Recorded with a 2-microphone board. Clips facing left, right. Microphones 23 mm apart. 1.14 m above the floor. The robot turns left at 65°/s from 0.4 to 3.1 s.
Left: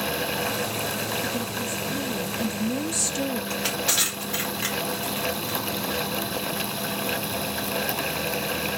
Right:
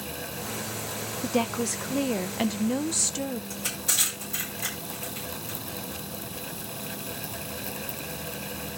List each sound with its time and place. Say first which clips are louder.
1.2 s a woman speaking: right 1 dB; 60° right, 0.5 m; by 3.4 s 175° left, 0.5 m
3.5 s crushing: left 5 dB; 35° left (ahead or behind), 4.5 m